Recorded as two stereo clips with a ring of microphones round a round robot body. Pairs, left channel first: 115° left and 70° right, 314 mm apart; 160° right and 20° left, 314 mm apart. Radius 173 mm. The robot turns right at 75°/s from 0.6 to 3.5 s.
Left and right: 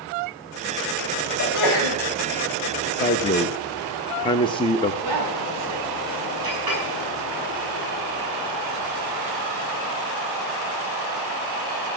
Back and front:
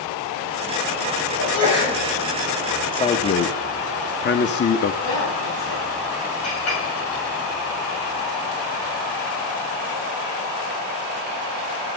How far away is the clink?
About 7.5 m.